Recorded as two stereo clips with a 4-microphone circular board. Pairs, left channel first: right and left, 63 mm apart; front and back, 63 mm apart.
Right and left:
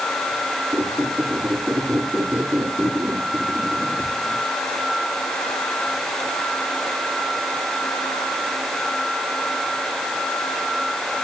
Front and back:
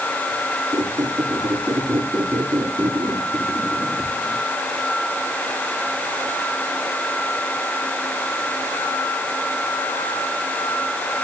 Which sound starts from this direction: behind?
A squeak, at 0.7 s.